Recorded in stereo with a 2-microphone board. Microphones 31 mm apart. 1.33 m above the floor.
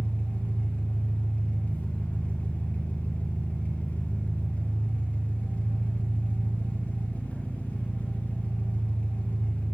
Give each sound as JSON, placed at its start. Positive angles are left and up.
{"t": 0.0, "sound": "an engine running", "side_deg": 55, "distance_m": 3.5}